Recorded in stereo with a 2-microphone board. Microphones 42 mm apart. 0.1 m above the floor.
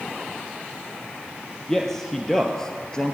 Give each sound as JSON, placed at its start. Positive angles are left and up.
{"t": 1.7, "sound": "a man speaking", "side_deg": 10, "distance_m": 2.5}